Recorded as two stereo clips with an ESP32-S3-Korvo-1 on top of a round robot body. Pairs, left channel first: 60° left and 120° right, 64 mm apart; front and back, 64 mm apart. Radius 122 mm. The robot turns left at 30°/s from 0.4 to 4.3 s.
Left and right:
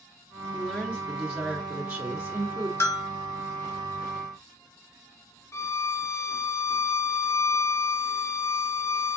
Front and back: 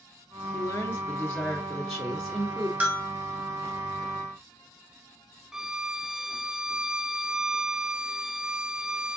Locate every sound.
0.5 s a woman speaking: 40° right, 1.8 m; by 2.7 s 105° right, 1.8 m
2.8 s a bell: 110° left, 1.0 m; by 3.1 s 100° left, 1.0 m
5.5 s a violin: 100° left, 0.6 m